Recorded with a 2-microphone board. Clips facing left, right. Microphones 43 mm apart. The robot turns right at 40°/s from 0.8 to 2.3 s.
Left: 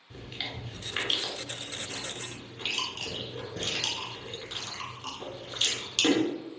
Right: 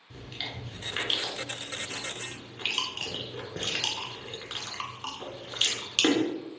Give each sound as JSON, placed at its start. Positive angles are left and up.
{"t": 0.1, "sound": "chewing", "side_deg": 5, "distance_m": 1.0}